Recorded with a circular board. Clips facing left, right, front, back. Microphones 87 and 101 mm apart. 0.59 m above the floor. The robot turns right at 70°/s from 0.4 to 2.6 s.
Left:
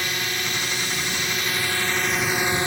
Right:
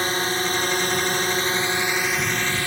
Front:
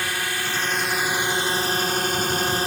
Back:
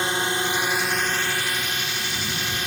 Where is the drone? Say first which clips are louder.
Right 5 dB, back 3 dB; 125° right; by 2.7 s 30° left.